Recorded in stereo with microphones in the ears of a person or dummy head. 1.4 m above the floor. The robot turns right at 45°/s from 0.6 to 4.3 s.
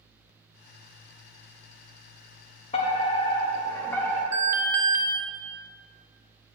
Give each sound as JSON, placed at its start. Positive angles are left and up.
{"t": 2.7, "sound": "a fire alarm", "azimuth_deg": 110, "distance_m": 1.1}
{"t": 4.3, "sound": "an alarm", "side_deg": -15, "distance_m": 1.1}